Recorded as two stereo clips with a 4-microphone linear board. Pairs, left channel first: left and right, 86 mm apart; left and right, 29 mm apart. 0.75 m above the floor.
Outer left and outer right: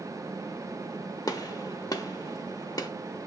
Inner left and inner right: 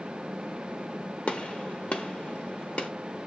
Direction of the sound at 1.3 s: 45° left (ahead or behind).